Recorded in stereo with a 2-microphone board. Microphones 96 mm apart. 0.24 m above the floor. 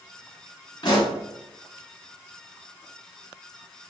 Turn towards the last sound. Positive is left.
turn(degrees=45)  # may be behind; listen again after turning